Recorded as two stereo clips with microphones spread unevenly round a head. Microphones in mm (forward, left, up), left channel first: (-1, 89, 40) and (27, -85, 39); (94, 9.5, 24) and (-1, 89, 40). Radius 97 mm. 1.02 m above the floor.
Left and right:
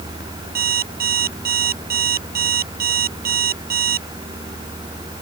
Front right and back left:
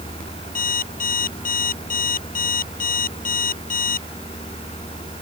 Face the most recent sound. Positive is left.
turn(degrees=-45)